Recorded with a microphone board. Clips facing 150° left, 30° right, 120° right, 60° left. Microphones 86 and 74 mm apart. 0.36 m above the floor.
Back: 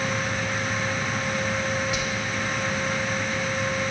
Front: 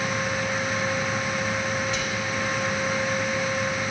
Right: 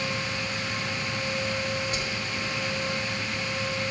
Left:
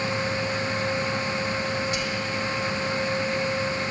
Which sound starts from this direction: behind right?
Whispering, at 1.9 s.